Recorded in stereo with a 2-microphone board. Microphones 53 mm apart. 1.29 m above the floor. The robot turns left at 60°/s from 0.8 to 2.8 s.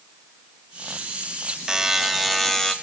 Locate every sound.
1.7 s a buzzer: 15° right (ahead or behind), 0.8 m; by 2.7 s 10° left (ahead or behind), 0.8 m